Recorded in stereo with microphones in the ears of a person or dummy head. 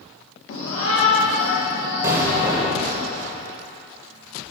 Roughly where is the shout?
Left.